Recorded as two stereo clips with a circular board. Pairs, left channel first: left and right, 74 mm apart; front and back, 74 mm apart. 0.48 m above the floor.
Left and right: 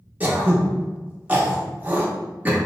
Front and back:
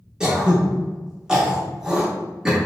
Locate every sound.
0.2 s throat clearing: 115° right, 0.7 m